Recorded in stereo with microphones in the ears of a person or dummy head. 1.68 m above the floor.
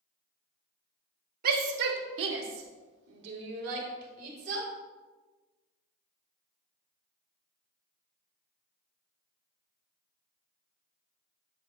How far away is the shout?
About 1.0 m.